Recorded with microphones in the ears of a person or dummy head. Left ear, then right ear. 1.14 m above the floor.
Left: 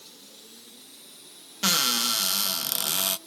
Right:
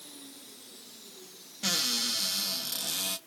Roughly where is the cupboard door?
Left.